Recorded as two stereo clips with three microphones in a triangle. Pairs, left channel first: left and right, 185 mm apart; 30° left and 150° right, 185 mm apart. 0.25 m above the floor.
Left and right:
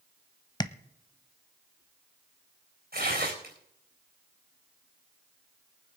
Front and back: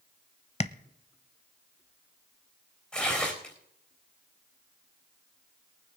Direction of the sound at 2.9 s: 55° right.